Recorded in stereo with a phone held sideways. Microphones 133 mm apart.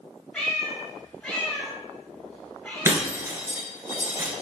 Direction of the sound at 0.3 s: 10° left (ahead or behind).